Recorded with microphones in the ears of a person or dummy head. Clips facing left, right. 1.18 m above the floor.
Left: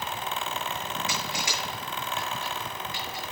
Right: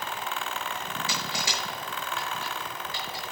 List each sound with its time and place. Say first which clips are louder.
1.1 s crushing: left 1 dB; 30° right (ahead or behind), 7 m